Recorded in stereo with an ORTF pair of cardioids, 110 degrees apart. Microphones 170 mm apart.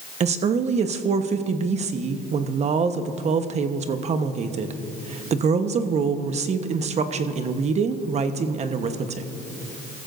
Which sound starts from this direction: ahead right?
A woman speaking, at 0.2 s.